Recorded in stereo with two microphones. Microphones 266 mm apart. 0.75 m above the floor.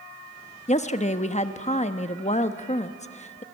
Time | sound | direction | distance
0.7 | a woman speaking | 25° left (ahead or behind) | 1.0 m